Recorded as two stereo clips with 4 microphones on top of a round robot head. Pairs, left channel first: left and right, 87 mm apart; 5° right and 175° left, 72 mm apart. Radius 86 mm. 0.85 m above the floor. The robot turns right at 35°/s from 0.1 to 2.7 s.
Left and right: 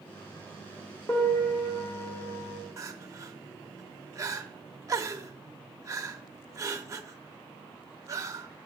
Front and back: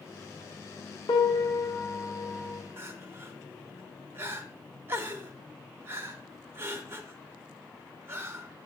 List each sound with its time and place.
1.1 s a piano: 20° left, 0.9 m; by 2.6 s 70° left, 0.9 m
2.8 s crying: 135° right, 0.7 m